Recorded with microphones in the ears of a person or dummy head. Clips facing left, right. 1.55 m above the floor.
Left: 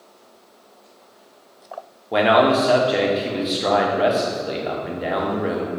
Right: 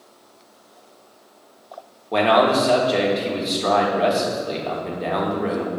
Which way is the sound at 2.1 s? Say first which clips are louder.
Left 1 dB; centre (ahead or behind).